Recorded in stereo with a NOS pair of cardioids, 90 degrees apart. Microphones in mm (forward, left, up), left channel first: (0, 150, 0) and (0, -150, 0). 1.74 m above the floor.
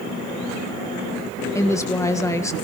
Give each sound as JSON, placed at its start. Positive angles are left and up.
{"t": 1.6, "sound": "a woman speaking", "azimuth_deg": 10, "distance_m": 1.7}